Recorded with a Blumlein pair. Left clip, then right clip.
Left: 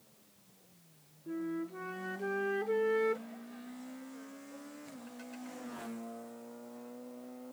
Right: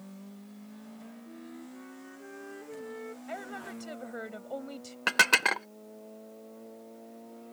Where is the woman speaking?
40° right.